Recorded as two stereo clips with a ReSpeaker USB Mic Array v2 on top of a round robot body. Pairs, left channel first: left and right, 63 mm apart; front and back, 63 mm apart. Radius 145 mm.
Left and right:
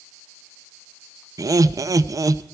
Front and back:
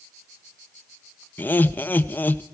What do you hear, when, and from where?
1.4 s laughter: 60° right, 0.8 m